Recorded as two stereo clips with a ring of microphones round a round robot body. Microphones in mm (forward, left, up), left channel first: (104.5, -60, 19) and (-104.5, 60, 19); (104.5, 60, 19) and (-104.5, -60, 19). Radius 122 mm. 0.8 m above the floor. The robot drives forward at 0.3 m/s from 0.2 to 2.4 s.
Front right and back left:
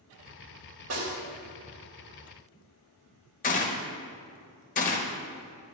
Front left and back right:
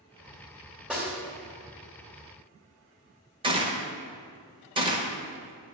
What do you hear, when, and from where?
0.9 s a snare drum: 125° left, 2 m
3.4 s a gunshot: 85° right, 0.7 m